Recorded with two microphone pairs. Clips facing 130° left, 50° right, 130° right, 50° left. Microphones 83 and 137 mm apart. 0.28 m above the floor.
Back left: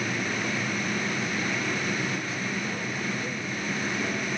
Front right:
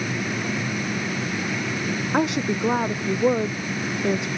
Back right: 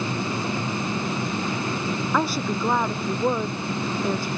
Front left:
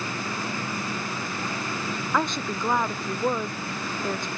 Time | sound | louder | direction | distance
2.1 | a woman speaking | front right 9 dB, back right 1 dB | 45° right | ?